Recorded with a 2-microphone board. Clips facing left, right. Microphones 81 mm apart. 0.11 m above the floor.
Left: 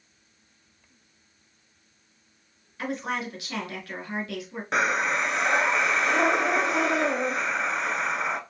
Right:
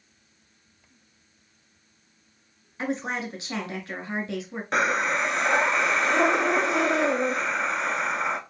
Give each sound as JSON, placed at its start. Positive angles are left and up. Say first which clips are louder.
{"t": 2.8, "sound": "a woman speaking", "louder": "right 1 dB", "side_deg": -25, "distance_m": 1.1}
{"t": 4.7, "sound": "breathing", "louder": "right 1 dB", "side_deg": 0, "distance_m": 0.6}